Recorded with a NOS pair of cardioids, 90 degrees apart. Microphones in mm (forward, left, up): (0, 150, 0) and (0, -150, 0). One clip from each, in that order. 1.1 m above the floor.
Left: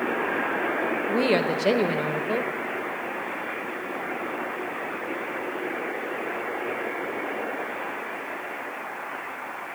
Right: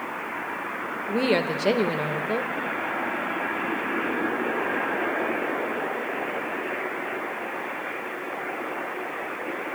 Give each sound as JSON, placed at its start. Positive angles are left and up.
{"t": 1.1, "sound": "a woman speaking", "azimuth_deg": 0, "distance_m": 0.7}